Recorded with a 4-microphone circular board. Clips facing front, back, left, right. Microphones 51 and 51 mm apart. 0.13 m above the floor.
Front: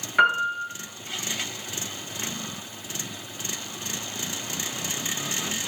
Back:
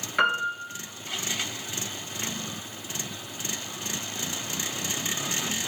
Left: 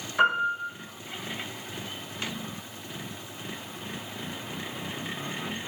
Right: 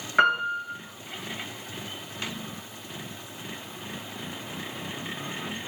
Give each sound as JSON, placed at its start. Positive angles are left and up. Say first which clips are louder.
{"t": 0.2, "sound": "a piano", "louder": "front 4 dB, right 1 dB", "azimuth_deg": -80, "distance_m": 0.8}